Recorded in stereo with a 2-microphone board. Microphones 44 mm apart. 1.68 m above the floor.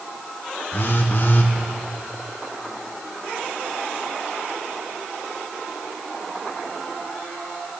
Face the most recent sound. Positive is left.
turn(degrees=50)  # may be behind; listen again after turning